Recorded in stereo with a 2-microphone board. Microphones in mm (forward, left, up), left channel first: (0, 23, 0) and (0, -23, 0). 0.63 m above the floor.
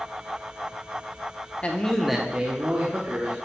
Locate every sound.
1.6 s a man speaking: 30° left (ahead or behind), 0.8 m; by 3.4 s 60° right (ahead or behind), 1.4 m